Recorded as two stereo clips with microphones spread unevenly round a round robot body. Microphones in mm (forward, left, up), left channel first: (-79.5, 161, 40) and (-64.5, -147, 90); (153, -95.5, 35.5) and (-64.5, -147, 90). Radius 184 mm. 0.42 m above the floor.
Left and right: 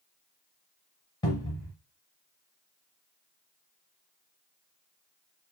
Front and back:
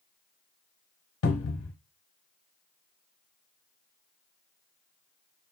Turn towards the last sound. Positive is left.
turn(degrees=15)